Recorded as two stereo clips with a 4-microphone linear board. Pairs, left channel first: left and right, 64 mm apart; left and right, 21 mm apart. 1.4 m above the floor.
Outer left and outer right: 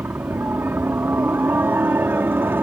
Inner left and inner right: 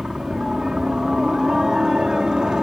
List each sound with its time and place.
0.0 s a helicopter: 35° right (ahead or behind)